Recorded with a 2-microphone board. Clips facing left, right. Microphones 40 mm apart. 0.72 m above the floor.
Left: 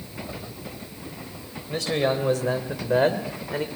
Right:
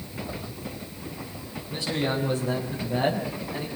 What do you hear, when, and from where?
1.7 s a man speaking: 65° left (ahead or behind), 4.5 m; by 3.7 s 70° left (ahead or behind), 3 m